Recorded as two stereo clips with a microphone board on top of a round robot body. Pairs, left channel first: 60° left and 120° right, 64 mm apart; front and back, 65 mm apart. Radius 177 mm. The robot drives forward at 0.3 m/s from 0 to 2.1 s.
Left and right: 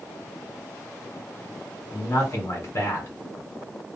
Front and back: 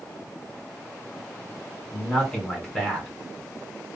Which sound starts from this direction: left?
A man speaking, at 1.9 s.